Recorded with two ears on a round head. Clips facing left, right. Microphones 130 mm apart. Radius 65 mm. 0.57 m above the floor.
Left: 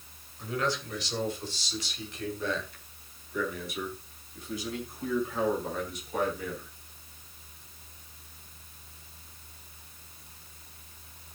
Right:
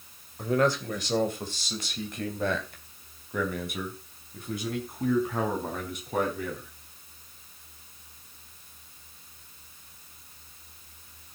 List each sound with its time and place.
0.4 s a man speaking: 40° right (ahead or behind), 2.5 m; by 6.7 s 45° right (ahead or behind), 5.5 m